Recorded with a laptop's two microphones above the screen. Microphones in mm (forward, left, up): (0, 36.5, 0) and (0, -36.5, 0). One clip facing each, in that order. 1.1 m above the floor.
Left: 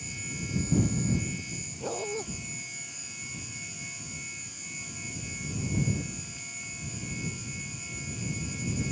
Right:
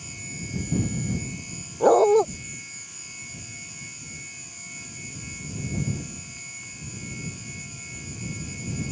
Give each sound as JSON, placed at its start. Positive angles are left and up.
{"t": 1.8, "sound": "a dog barking", "side_deg": -60}